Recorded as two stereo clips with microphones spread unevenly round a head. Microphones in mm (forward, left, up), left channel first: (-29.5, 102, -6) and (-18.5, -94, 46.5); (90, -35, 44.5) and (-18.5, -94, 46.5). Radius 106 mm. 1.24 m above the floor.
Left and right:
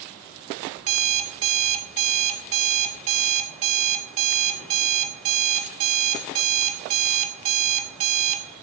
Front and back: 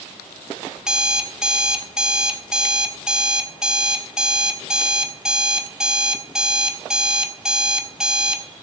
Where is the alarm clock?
70° right, 1.9 m.